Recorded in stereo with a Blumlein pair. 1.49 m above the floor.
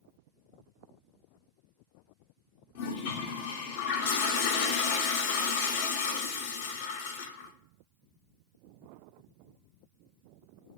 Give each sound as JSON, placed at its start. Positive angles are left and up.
{"t": 2.8, "sound": "a toilet flushing", "azimuth_deg": 50, "distance_m": 0.6}